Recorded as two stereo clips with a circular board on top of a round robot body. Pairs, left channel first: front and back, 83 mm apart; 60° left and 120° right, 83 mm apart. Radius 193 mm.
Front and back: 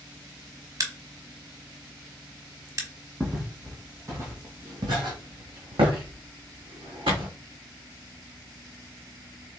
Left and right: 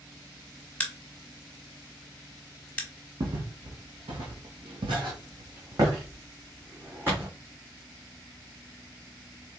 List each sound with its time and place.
0.8 s a crack: 135° left, 1.2 m
3.2 s footsteps: 95° right, 1.4 m; by 7.3 s 175° left, 2.0 m